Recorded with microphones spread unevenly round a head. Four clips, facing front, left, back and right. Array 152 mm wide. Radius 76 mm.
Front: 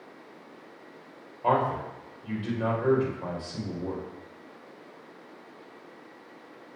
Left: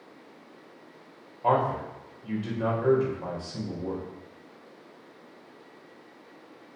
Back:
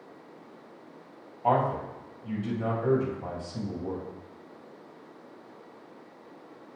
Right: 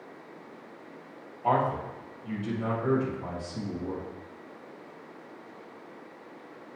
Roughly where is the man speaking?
Ahead left.